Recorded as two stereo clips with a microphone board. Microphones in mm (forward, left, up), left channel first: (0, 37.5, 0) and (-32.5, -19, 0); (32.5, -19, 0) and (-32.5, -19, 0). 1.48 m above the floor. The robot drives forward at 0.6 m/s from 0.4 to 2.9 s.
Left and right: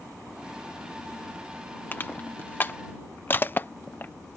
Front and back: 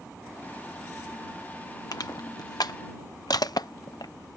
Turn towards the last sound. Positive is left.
turn(degrees=0)